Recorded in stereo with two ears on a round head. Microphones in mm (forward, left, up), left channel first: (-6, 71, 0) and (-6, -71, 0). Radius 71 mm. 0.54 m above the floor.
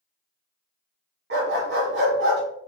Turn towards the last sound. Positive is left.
turn(degrees=-85)